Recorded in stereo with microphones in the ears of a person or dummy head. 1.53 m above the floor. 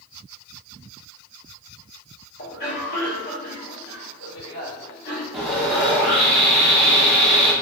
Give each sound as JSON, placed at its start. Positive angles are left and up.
{"t": 2.4, "sound": "a cough", "side_deg": 55, "distance_m": 1.7}
{"t": 5.3, "sound": "sawing", "side_deg": -5, "distance_m": 1.1}